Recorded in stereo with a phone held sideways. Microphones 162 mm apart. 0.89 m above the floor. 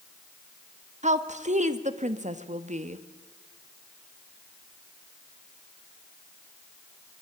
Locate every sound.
1.0 s a woman speaking: 45° right (ahead or behind), 1.3 m